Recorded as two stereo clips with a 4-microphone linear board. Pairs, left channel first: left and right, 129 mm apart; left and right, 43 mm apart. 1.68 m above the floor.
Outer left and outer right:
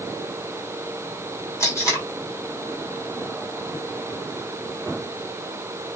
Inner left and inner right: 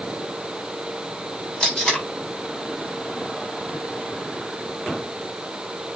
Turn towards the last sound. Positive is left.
turn(degrees=25)  # may be behind; listen again after turning